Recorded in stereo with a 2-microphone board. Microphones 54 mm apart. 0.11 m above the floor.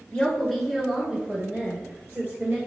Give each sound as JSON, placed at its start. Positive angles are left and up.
{"t": 0.1, "sound": "a woman speaking", "side_deg": 15, "distance_m": 1.1}